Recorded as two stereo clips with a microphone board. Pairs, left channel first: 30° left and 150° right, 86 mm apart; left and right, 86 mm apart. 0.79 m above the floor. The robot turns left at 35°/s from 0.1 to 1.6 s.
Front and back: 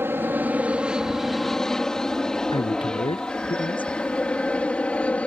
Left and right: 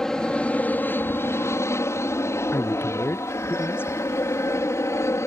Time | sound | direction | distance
0.0 | an aircraft | 170° left | ?
2.5 | a man speaking | 25° left | ?